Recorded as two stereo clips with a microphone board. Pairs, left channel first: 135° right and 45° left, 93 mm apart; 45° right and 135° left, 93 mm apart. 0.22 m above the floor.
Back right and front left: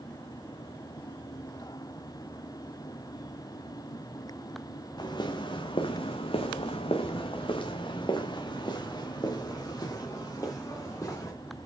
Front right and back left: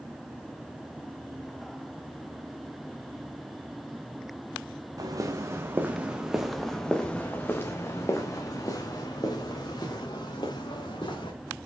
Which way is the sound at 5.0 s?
175° right.